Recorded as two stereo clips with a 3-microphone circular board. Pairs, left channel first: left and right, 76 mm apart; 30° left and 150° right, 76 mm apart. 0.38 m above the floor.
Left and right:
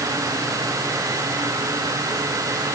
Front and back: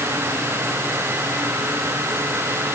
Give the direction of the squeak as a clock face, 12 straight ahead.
I don't hear a squeak.